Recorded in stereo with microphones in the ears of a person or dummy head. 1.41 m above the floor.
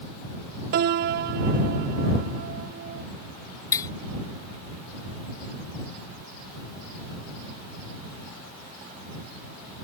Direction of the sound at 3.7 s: 20° left (ahead or behind).